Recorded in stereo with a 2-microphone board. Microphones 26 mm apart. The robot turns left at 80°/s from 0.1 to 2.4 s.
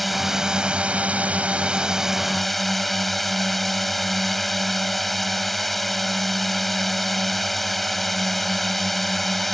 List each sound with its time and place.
0.0 s a drone: straight ahead; by 9.5 s 175° left